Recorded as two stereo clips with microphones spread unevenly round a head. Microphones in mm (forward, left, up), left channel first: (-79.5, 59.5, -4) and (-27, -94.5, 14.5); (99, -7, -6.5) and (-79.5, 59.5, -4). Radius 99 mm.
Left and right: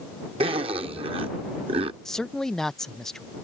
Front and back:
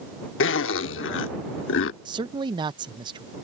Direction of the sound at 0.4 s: 15° right.